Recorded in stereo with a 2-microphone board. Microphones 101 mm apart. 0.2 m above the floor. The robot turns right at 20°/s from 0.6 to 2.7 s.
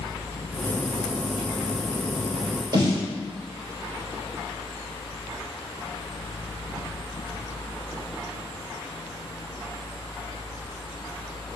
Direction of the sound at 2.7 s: 40° right (ahead or behind).